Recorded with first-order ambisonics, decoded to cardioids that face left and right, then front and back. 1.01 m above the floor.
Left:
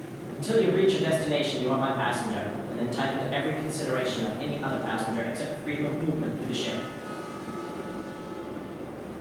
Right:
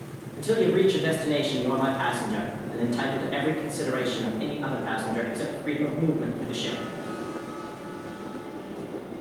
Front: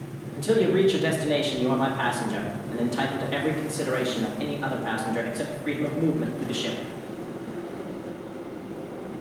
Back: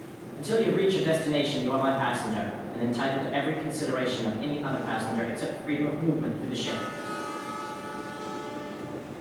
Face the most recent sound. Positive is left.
turn(degrees=5)